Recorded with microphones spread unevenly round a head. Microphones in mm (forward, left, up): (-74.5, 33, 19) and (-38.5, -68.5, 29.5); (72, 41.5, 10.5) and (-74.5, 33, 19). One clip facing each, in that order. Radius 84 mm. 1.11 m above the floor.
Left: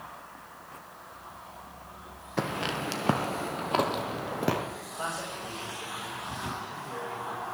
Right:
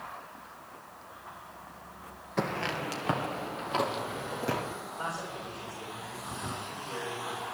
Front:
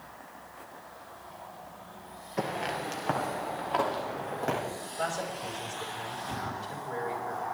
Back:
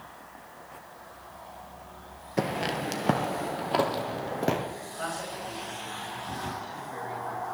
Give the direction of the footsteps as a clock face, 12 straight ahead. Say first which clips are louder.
Left 1 dB, back 3 dB; 5 o'clock.